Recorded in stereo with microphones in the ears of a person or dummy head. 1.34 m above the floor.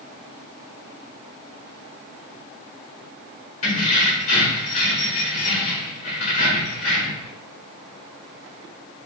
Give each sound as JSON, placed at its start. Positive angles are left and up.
{"t": 3.6, "sound": "keys jangling", "side_deg": 40, "distance_m": 1.0}